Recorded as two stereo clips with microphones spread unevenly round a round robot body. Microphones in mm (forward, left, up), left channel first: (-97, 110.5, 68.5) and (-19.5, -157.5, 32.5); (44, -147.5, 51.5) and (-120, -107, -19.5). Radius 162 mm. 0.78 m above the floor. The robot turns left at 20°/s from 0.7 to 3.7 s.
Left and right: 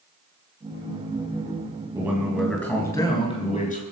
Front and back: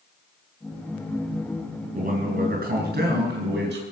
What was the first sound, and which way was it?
A man speaking, 155° right.